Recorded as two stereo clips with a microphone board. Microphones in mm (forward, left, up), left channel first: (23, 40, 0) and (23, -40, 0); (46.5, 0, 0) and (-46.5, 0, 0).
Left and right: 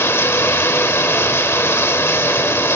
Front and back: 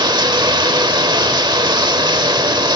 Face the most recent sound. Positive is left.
turn(degrees=150)